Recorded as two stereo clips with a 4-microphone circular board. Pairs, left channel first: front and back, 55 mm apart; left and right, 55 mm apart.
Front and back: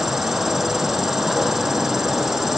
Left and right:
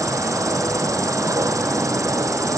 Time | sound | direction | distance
0.0 | an insect | 95° right | ?